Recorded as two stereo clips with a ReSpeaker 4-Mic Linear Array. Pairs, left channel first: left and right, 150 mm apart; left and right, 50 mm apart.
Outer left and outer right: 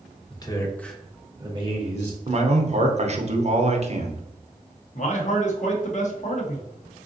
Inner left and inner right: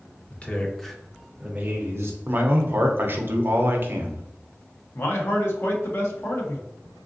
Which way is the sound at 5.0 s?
55° left (ahead or behind).